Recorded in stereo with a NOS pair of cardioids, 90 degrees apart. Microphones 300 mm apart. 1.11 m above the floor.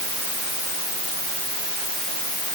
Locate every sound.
Only background noise.